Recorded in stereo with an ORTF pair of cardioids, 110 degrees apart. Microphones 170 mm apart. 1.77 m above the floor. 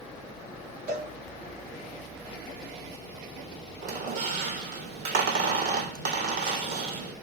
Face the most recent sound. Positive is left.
turn(degrees=-70)